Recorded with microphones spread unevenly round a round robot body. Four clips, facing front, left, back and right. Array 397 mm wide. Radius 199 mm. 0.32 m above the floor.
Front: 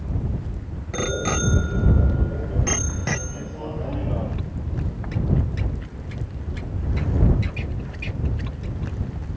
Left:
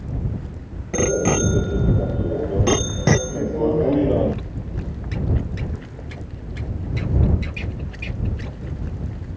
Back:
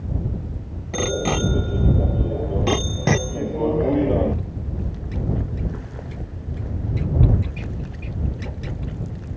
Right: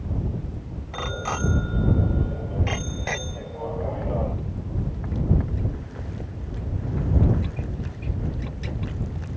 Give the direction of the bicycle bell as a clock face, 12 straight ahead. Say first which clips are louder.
Left 10 dB, back 2 dB; 9 o'clock.